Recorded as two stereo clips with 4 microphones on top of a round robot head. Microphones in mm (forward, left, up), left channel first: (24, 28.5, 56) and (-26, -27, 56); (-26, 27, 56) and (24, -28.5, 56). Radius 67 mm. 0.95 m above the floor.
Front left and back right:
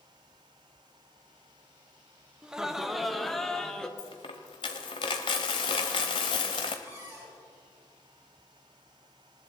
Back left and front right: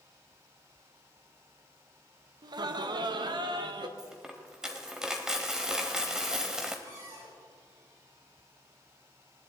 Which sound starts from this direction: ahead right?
Laughter, at 2.4 s.